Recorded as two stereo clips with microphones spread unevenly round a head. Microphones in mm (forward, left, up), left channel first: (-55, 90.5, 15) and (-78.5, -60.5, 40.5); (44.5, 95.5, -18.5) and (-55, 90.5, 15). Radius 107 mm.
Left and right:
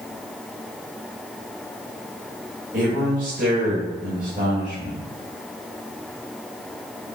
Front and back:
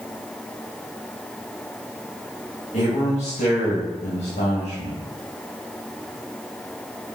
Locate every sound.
2.7 s a man speaking: 55° right, 2.0 m